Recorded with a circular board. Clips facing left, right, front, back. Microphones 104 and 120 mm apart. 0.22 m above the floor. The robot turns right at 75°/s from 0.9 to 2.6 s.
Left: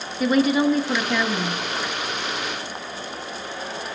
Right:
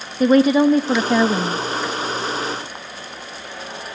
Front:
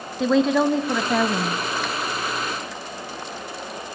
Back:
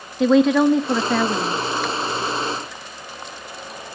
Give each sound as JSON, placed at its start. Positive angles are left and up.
{"t": 0.2, "sound": "a woman speaking", "azimuth_deg": -90, "distance_m": 1.2}